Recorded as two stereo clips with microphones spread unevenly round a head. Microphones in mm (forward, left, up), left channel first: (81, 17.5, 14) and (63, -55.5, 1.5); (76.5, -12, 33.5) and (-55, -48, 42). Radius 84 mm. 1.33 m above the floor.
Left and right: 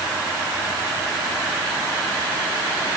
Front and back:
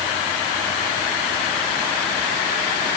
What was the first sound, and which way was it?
Only background noise.